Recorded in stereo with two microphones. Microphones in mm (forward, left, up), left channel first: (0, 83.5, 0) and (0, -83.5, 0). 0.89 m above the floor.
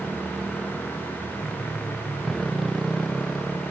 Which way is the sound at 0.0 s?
Centre (ahead or behind).